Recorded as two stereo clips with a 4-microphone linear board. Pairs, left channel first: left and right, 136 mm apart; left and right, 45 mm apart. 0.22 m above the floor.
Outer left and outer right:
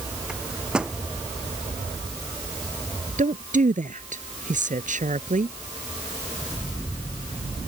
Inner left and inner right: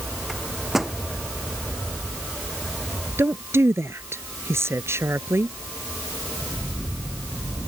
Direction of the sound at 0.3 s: 5° right (ahead or behind).